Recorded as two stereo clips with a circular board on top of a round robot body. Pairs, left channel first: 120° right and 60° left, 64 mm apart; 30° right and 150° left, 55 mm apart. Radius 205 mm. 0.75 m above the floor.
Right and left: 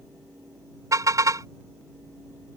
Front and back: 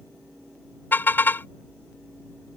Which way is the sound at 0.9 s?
25° left.